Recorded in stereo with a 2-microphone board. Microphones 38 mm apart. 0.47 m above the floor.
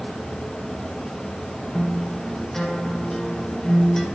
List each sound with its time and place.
1.7 s a guitar: 10° left (ahead or behind), 1.1 m